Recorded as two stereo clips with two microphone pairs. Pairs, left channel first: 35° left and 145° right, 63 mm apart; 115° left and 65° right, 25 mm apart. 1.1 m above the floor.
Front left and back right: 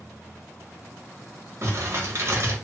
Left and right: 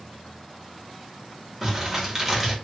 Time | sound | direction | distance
1.6 | crumpling | 135° right | 1.1 m